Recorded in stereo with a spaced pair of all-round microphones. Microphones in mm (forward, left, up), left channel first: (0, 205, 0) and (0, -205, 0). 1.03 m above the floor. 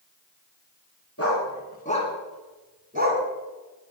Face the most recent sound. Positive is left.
turn(degrees=-30)  # may be behind; listen again after turning